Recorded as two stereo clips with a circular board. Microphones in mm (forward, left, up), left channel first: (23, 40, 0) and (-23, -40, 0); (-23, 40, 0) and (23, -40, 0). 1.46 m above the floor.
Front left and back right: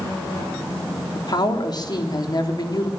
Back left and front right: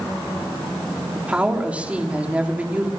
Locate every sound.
1.1 s a woman speaking: 15° left, 3.5 m